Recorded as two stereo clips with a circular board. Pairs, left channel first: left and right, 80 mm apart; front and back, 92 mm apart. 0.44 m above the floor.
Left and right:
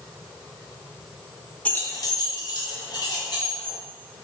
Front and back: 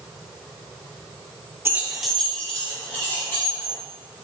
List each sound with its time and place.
1.6 s keys jangling: 150° left, 0.6 m; by 3.8 s 65° left, 3 m